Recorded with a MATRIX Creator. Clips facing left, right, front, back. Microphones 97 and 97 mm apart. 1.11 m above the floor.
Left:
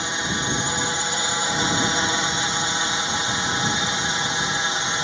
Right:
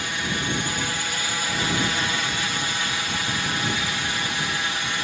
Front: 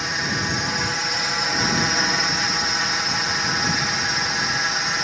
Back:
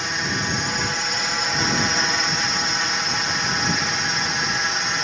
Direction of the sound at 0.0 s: 90° left.